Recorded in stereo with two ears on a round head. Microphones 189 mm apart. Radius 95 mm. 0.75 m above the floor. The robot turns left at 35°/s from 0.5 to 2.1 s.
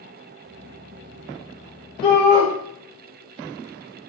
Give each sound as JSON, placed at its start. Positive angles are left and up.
{"t": 2.0, "sound": "a shout", "side_deg": 25, "distance_m": 2.5}